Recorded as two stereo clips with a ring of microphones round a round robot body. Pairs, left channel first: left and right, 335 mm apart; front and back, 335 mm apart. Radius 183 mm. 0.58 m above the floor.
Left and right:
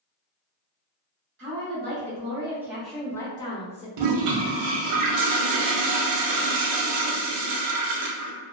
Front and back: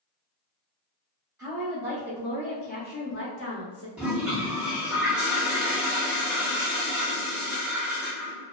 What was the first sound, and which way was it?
A woman speaking, 105° right.